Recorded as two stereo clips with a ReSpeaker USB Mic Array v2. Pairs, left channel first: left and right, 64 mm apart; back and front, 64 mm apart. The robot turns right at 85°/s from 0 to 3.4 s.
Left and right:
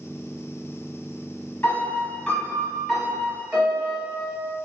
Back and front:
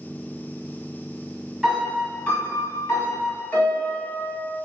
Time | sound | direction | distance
1.6 | a piano | 75° left | 1.1 m